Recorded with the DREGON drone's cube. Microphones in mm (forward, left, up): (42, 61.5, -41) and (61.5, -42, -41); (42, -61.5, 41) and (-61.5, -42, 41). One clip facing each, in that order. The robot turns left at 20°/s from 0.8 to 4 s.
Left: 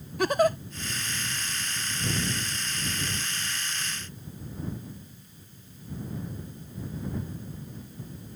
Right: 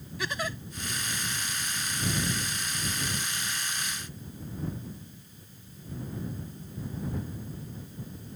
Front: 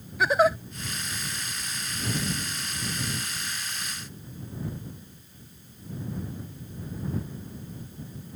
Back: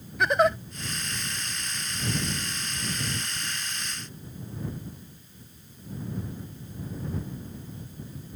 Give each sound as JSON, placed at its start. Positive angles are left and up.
{"t": 0.2, "sound": "a giggle", "azimuth_deg": 75}